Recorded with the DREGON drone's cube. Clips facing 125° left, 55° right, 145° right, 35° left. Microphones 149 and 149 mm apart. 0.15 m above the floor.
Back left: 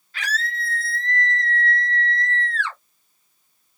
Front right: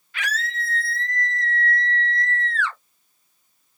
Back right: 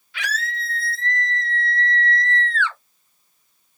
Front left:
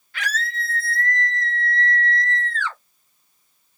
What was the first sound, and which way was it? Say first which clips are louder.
A scream: even, front left 1 dB; 70° left.